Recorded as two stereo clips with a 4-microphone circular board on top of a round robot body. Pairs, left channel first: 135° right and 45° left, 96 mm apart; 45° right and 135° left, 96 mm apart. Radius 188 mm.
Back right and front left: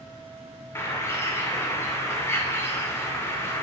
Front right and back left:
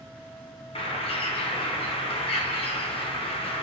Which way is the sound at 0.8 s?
70° right.